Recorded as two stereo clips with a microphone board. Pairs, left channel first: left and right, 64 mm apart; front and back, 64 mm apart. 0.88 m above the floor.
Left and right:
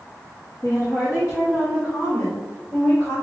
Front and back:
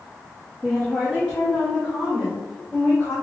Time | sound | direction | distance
0.6 | a woman speaking | 80° left | 1.3 m